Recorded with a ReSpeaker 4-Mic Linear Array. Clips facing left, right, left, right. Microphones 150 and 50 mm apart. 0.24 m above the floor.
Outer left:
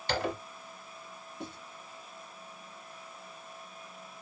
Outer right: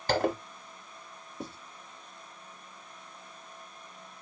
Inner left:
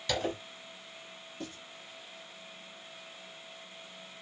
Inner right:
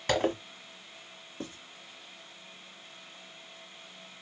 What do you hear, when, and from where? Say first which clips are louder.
0.1 s a zipper: outer right 5 dB, inner right 5 dB; 50° right (ahead or behind), 0.9 m
1.4 s writing: outer right 2 dB, inner right 2 dB; 40° right (ahead or behind), 1.8 m